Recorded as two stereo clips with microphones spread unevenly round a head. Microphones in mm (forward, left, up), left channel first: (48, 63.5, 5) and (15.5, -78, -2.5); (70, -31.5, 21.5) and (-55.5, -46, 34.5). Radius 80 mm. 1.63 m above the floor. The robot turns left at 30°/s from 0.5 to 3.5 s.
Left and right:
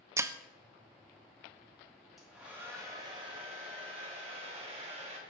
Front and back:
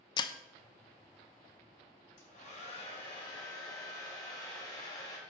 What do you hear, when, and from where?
0.2 s breaking glass: 40° right, 0.9 m
2.2 s a hair dryer: 10° right, 5 m; by 5.2 s 50° right, 5 m